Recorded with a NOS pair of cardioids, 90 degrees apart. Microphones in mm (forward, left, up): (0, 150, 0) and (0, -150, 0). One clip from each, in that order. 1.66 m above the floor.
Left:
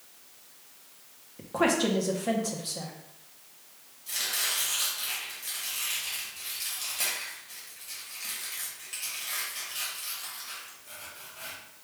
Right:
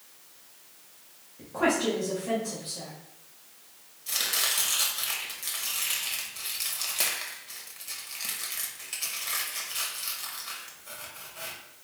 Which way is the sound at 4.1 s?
40° right.